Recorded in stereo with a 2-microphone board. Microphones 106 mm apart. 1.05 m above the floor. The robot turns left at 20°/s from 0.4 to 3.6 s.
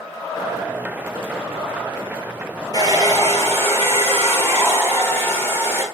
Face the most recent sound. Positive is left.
turn(degrees=25)  # may be behind; listen again after turning